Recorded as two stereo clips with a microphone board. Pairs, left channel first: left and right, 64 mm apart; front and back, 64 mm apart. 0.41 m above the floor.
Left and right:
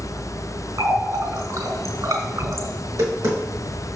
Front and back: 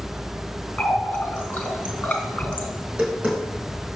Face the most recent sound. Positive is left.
turn(degrees=-110)